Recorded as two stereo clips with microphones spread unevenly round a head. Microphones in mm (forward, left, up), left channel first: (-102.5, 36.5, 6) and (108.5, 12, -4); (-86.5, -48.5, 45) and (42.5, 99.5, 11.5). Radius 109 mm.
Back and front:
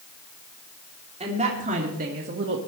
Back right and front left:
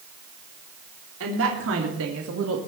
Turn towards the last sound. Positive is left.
turn(degrees=30)